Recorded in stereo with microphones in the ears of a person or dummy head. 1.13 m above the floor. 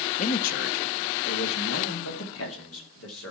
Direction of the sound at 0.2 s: 40° left (ahead or behind).